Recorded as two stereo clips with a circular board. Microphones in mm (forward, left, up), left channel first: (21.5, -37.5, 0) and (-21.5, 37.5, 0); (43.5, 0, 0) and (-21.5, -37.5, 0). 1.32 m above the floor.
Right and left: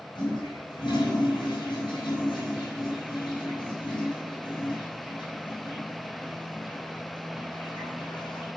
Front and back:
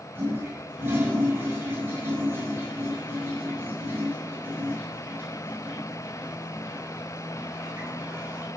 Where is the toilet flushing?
90° right, 5.5 m.